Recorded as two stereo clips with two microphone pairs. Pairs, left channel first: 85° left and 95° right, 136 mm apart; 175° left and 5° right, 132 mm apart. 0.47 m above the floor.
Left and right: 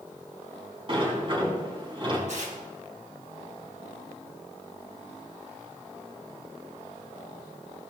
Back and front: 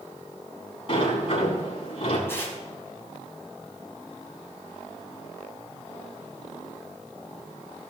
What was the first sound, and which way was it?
A sliding door, 145° right.